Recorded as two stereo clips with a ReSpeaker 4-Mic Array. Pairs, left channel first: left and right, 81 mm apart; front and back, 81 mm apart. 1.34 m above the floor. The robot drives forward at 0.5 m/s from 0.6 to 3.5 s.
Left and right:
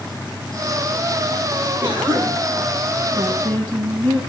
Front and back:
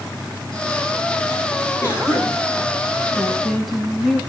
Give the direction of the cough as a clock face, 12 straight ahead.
2 o'clock.